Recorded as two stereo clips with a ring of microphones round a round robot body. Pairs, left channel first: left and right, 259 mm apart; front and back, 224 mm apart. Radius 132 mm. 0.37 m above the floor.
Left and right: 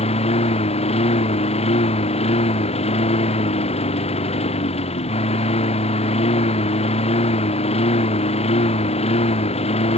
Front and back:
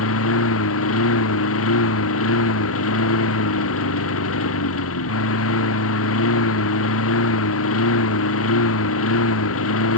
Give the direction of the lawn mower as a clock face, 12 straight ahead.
11 o'clock.